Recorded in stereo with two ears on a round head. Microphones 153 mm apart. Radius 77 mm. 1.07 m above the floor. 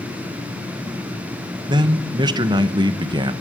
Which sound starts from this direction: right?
A man speaking, at 1.7 s.